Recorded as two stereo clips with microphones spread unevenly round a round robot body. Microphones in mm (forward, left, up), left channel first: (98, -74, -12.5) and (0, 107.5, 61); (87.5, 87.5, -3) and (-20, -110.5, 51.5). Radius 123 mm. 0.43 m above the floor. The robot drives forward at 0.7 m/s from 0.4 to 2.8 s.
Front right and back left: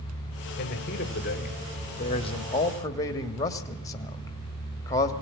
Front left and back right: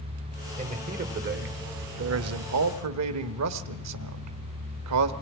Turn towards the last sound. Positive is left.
turn(degrees=-120)